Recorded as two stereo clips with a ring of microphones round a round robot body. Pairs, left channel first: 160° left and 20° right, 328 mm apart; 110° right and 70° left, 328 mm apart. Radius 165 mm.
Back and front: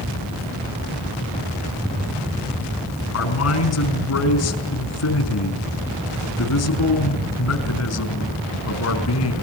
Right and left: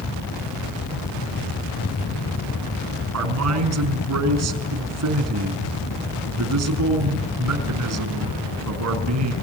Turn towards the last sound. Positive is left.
turn(degrees=110)